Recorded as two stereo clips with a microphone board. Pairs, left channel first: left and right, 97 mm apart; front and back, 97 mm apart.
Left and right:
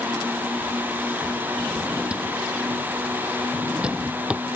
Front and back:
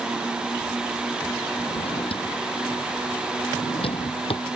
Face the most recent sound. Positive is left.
turn(degrees=-10)